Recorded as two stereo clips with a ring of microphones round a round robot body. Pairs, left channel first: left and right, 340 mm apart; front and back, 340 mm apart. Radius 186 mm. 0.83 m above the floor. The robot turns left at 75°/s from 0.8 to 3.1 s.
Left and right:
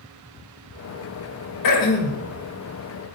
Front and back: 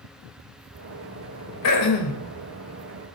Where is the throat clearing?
50° left, 2.5 m; by 2.2 s 10° left, 2.5 m.